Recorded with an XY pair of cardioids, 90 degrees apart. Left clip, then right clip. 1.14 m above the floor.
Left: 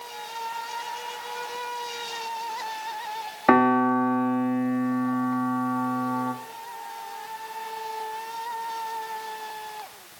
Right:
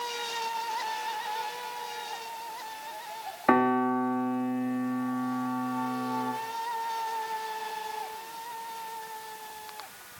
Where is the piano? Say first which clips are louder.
Left 5 dB; 35° left, 2.5 m.